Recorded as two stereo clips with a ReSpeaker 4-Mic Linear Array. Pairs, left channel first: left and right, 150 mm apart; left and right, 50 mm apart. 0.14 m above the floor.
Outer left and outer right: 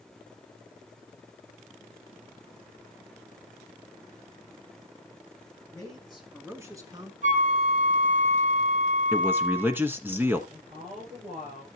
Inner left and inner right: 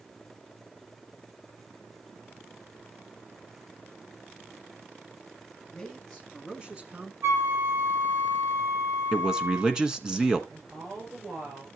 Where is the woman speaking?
70° right (ahead or behind), 8 m.